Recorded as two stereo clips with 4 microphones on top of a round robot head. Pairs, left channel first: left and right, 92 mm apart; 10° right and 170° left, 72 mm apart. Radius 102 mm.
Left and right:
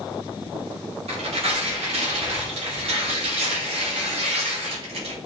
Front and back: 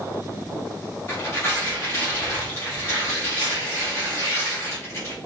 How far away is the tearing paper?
About 0.7 m.